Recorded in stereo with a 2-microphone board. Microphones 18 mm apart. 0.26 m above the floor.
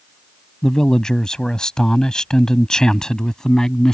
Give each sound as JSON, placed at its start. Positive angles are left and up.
{"t": 0.6, "sound": "a man speaking", "side_deg": 35}